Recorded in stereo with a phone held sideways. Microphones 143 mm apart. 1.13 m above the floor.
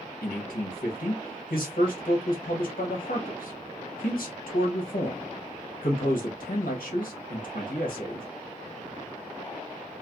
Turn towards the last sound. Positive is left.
turn(degrees=75)  # may be behind; listen again after turning